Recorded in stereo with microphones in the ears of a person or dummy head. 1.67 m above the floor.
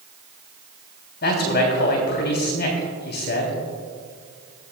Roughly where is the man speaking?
Left.